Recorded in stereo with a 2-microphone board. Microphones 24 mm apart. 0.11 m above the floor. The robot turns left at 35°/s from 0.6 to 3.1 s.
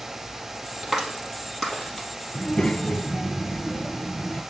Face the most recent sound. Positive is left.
turn(degrees=40)  # may be behind; listen again after turning